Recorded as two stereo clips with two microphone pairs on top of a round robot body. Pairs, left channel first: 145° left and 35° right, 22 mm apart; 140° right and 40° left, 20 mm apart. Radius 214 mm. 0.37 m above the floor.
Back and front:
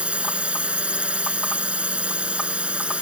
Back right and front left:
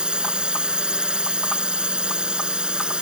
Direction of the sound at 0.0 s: 5° right.